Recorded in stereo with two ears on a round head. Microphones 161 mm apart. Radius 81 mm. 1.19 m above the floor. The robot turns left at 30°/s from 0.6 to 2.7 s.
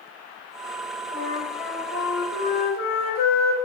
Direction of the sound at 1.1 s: 125° left.